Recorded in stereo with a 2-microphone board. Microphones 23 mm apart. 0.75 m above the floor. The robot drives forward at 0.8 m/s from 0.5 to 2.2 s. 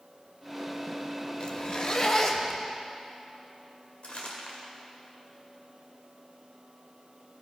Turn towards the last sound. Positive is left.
turn(degrees=80)